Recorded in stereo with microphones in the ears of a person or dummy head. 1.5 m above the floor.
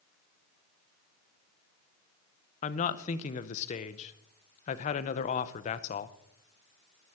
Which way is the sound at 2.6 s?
40° left (ahead or behind).